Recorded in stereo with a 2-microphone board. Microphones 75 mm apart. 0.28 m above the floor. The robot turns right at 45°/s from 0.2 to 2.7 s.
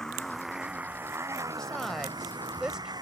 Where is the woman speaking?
10° left (ahead or behind); by 2.9 s 10° right (ahead or behind).